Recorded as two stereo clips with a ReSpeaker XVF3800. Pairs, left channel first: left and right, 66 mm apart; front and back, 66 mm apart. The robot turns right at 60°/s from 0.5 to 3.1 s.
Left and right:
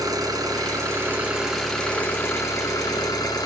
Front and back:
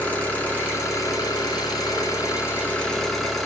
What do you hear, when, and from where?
0.0 s an engine running: 70° right, 2 m; by 3.5 s 85° left, 2 m